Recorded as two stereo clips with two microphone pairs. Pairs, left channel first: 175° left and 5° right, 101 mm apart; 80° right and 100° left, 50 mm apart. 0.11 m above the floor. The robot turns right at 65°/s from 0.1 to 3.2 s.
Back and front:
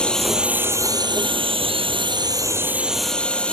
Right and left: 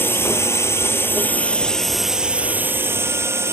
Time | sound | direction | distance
0.0 | a drone | 105° right | ?